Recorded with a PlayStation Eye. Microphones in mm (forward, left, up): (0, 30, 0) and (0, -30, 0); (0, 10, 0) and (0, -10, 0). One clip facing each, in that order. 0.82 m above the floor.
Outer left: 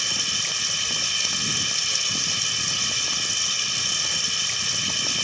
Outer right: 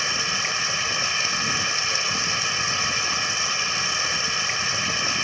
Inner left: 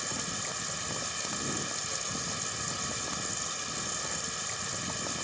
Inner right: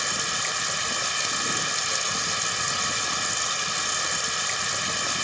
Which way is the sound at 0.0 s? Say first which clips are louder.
Outer right 5 dB, inner right 9 dB; 40° right (ahead or behind).